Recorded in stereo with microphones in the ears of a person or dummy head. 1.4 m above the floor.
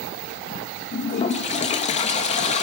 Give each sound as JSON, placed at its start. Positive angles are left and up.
{"t": 0.9, "sound": "a toilet flushing", "side_deg": 35, "distance_m": 1.0}